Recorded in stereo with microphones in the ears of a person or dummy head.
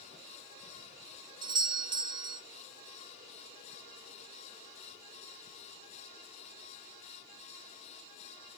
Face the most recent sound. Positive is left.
turn(degrees=-25)  # may be behind; listen again after turning